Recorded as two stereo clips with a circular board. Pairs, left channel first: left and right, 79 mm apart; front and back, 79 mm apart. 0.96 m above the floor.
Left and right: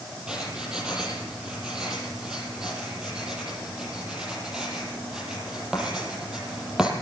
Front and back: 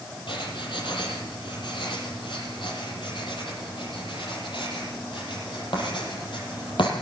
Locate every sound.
0.3 s writing: 10° right, 7.5 m